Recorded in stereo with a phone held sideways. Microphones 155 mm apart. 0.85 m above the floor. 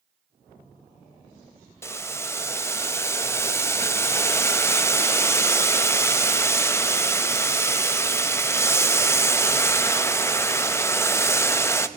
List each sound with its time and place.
1.8 s boiling: 15° left (ahead or behind), 0.6 m